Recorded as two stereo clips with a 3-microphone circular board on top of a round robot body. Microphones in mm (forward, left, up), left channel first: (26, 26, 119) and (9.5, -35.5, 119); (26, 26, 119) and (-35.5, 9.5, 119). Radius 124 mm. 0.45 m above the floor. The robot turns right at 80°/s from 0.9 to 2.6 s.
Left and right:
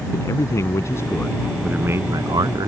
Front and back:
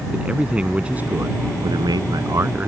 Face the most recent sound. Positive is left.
turn(degrees=-105)